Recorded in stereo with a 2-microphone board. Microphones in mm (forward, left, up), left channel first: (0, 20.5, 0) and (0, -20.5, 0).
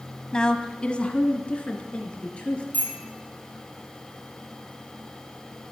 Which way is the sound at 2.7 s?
40° left (ahead or behind).